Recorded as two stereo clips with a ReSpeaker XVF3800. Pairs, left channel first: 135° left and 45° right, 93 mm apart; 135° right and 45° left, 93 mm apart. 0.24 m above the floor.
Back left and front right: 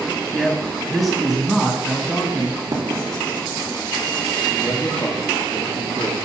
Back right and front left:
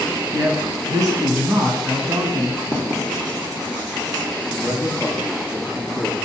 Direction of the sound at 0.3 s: 45° left.